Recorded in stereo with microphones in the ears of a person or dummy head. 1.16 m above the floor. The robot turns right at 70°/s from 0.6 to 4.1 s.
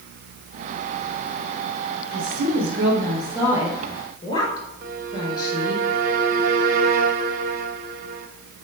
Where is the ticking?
No ticking in this recording.